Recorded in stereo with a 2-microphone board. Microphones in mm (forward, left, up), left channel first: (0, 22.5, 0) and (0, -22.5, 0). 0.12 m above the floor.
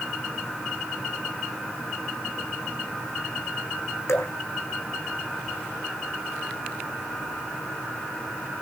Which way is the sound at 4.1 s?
80° left.